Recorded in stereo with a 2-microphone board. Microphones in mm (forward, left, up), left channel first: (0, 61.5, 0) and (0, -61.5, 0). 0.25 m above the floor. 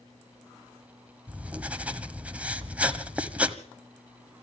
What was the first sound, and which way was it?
Writing, 10° right (ahead or behind).